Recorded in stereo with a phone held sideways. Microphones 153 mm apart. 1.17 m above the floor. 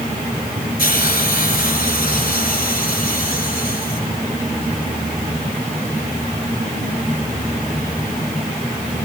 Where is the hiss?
75° left (ahead or behind), 8 m.